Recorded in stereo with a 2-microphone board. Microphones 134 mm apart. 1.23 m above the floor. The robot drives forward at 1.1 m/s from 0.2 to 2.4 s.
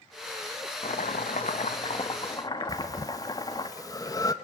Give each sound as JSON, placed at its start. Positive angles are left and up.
{"t": 0.8, "sound": "chopping", "side_deg": 65, "distance_m": 1.0}
{"t": 2.7, "sound": "breathing", "side_deg": 25, "distance_m": 1.0}